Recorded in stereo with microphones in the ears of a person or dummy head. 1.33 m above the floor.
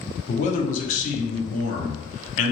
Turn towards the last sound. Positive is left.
turn(degrees=45)  # may be behind; listen again after turning